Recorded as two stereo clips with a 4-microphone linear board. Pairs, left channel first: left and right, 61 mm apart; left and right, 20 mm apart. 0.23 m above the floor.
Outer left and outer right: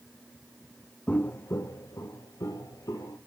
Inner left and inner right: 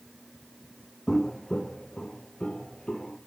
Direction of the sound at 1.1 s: 15° left (ahead or behind).